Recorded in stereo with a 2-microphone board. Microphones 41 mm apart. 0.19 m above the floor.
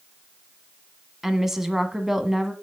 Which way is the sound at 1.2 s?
10° right (ahead or behind).